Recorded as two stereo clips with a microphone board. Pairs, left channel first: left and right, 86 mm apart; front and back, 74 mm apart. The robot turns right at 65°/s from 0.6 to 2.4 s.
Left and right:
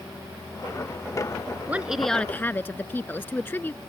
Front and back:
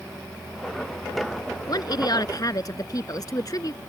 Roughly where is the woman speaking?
Ahead.